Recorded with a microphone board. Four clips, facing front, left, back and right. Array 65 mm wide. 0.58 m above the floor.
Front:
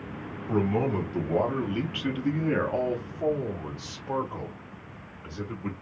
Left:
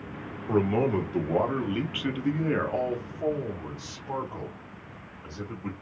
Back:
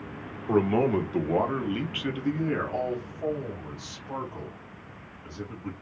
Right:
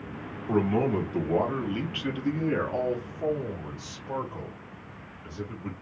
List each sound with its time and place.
0.5 s a man speaking: 175° left, 1.3 m; by 5.7 s 15° left, 2 m